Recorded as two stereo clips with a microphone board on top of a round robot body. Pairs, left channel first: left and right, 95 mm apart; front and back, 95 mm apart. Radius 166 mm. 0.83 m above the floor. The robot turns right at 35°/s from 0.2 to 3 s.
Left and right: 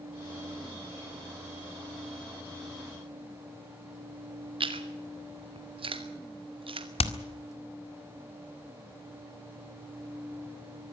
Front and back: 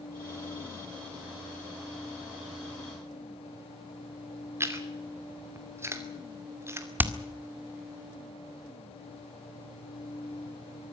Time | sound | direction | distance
4.6 | chewing | 120° right | 3 m
7.0 | hammering | 110° left | 1.9 m